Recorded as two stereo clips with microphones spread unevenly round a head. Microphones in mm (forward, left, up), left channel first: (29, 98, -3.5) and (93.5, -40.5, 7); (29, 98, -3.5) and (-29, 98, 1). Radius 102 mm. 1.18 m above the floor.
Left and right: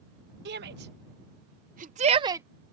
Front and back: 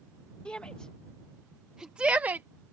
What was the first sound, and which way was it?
A shout, 80° right.